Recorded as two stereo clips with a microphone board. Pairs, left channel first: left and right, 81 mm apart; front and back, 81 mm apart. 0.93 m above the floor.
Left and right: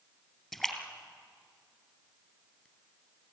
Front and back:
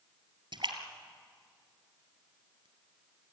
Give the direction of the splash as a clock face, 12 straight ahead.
6 o'clock.